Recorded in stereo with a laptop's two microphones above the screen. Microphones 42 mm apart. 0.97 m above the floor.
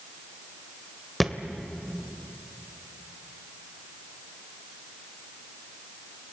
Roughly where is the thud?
Centre.